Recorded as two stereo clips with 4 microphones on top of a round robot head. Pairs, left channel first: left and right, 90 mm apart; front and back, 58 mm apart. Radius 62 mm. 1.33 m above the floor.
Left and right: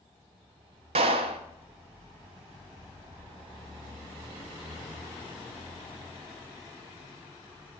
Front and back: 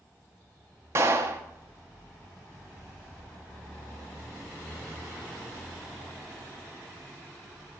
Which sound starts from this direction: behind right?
A clap, at 0.9 s.